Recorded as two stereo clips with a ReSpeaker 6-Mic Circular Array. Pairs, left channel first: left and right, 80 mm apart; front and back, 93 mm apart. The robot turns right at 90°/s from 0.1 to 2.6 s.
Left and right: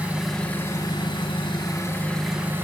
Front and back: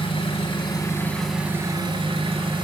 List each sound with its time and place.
0.0 s an engine running: 15° right, 1.5 m; by 2.6 s 150° right, 1.5 m